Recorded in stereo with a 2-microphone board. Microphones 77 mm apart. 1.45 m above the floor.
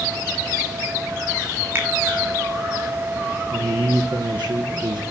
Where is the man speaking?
80° right, 1.5 m.